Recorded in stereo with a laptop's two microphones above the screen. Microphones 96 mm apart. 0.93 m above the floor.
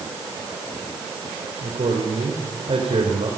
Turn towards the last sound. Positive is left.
turn(degrees=-85)